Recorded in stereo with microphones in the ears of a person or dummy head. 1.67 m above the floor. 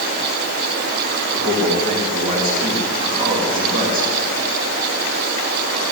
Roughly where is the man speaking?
Right.